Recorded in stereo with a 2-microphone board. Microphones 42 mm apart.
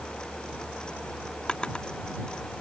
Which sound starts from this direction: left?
A drawer, at 1.5 s.